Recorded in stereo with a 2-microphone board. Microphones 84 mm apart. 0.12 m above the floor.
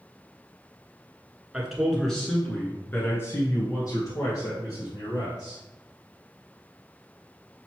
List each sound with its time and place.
1.5 s a man speaking: 5° right (ahead or behind), 1.4 m; by 5.6 s 55° left (ahead or behind), 2.5 m